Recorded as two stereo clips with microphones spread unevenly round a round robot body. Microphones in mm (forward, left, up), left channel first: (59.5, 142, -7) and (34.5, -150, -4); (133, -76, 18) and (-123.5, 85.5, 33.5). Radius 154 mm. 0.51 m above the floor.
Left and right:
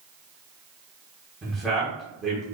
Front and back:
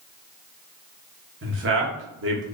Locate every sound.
1.4 s a man speaking: 175° left, 1.1 m